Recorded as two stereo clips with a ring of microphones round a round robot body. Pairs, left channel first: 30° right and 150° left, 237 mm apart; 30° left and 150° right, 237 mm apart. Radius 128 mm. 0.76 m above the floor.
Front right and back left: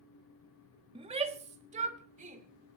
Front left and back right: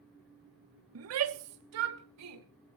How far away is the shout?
About 1.0 m.